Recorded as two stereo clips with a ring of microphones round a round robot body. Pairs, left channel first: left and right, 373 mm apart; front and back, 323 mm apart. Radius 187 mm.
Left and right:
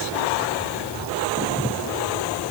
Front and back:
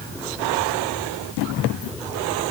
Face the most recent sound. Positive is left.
No sound to turn to.